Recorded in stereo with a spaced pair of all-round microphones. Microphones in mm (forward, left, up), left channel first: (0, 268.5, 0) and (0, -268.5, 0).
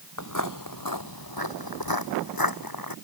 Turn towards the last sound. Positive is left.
turn(degrees=40)  # may be behind; listen again after turning